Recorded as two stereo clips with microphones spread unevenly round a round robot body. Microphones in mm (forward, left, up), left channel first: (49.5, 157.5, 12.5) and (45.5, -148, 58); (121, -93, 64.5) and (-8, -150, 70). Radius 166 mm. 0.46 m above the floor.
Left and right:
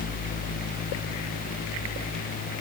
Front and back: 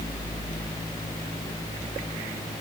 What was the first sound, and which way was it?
Only background noise.